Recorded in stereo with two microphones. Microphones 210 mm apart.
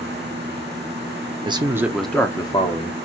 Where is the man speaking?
25° right (ahead or behind), 0.7 m; by 2.9 s 35° left (ahead or behind), 0.9 m.